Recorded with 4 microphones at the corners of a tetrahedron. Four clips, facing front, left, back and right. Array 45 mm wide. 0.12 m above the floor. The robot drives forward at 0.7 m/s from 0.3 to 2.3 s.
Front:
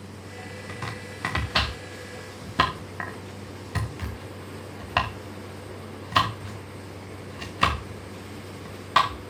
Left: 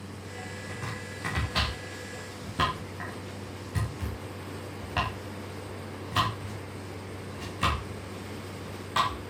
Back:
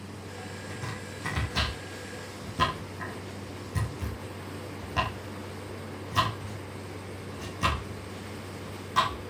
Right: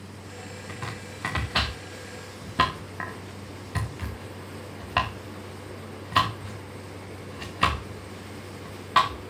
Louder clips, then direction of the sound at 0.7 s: Right 3 dB, front 5 dB; 25° right.